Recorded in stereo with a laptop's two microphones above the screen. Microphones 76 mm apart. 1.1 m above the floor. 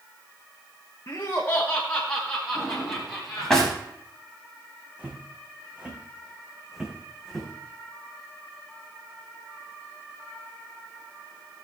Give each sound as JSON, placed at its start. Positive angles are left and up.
{"t": 1.1, "sound": "laughter", "side_deg": 40, "distance_m": 1.1}
{"t": 2.5, "sound": "a drawer", "side_deg": 10, "distance_m": 4.0}
{"t": 5.0, "sound": "footsteps", "side_deg": -25, "distance_m": 3.5}